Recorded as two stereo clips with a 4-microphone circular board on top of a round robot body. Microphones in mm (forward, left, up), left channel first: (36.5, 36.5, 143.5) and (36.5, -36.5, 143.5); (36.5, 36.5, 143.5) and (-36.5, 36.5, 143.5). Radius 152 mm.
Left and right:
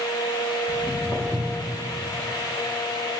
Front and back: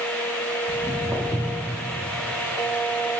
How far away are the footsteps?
About 2.5 m.